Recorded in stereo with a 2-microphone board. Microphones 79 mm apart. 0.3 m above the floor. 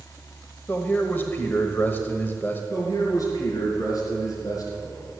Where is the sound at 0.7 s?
25° left (ahead or behind), 1.2 m.